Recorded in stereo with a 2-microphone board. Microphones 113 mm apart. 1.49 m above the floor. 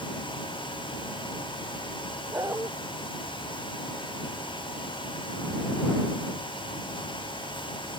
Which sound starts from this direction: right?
A dog barking, at 2.3 s.